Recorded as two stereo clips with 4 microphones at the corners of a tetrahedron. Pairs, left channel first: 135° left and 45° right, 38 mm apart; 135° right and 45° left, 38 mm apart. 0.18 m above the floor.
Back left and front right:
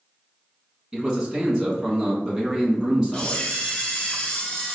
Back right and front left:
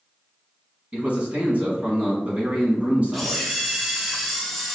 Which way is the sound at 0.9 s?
20° left.